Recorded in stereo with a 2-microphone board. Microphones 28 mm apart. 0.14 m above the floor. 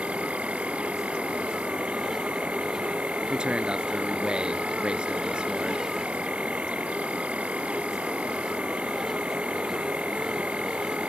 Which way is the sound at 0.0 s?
45° right (ahead or behind).